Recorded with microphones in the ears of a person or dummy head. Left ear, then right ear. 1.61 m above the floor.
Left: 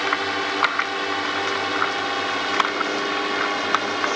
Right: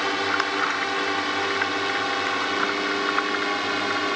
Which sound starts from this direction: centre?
A drone, at 0.0 s.